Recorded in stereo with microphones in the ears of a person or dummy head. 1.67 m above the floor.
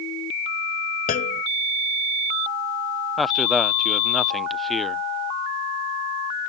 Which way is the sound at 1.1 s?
45° left (ahead or behind).